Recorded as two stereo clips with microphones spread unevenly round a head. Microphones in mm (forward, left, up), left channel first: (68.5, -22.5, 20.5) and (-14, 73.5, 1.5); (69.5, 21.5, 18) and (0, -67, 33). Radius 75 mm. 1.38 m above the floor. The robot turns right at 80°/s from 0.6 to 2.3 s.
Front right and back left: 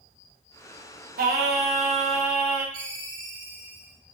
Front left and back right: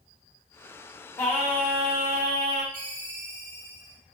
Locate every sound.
1.2 s singing: 125° left, 0.8 m; by 2.6 s 145° right, 0.8 m
2.7 s a ringtone: 150° right, 2.5 m